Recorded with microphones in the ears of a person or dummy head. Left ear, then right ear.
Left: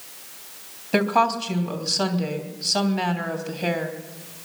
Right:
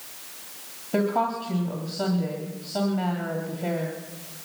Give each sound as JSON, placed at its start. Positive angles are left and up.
{"t": 0.9, "sound": "a woman speaking", "side_deg": 65, "distance_m": 3.0}